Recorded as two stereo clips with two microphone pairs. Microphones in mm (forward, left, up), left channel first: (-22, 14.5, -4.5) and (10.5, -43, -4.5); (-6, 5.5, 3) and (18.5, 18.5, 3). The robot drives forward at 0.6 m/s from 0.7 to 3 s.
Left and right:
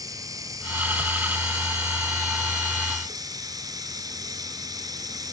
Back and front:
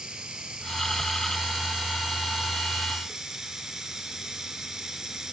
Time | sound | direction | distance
0.0 | running water | 35° right | 4.5 m